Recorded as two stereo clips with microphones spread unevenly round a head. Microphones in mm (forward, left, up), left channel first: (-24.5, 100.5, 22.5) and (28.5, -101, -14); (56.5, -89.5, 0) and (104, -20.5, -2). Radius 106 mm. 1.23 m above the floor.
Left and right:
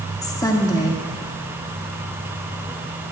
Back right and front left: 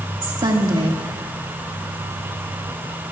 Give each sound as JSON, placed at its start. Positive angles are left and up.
{"t": 0.2, "sound": "a woman speaking", "azimuth_deg": 30, "distance_m": 2.0}